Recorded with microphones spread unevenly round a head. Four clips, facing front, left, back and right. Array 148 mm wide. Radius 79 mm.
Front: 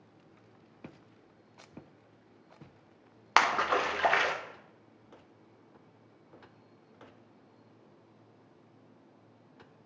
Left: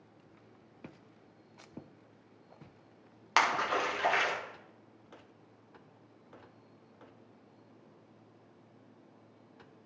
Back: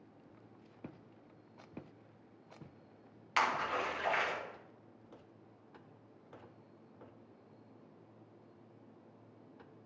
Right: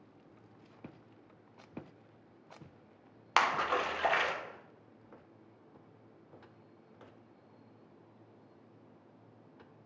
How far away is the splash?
About 1.2 m.